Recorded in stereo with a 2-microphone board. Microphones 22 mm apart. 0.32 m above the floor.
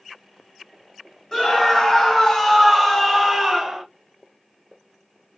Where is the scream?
25° left (ahead or behind), 2 m; by 3.9 s 15° right (ahead or behind), 1.1 m.